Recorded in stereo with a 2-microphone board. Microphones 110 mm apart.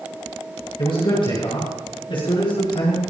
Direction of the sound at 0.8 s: 50° left (ahead or behind).